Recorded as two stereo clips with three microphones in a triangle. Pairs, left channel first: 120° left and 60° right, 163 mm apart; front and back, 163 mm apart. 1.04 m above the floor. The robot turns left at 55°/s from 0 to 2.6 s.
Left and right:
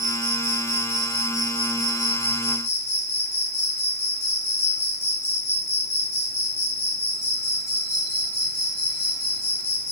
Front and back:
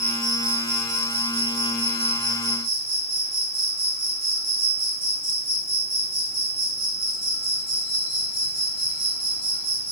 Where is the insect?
95° right, 3.5 m; by 9.9 s 125° left, 3.5 m.